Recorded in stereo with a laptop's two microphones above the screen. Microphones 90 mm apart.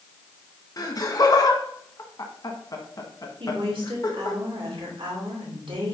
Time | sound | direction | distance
0.8 | laughter | 45° left (ahead or behind) | 1.1 m
3.4 | a woman speaking | 75° right (ahead or behind) | 2.5 m